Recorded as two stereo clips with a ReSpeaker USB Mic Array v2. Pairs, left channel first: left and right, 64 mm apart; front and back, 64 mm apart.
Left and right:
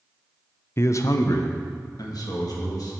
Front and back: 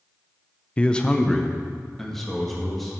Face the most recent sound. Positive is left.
turn(degrees=90)